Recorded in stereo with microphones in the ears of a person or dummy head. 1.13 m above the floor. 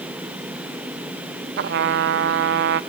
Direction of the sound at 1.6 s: 55° right (ahead or behind).